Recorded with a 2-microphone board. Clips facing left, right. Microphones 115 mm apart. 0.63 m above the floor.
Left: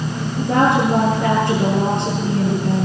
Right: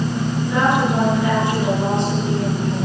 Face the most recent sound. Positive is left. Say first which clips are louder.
# left 3 dB
turn(degrees=50)  # may be behind; listen again after turning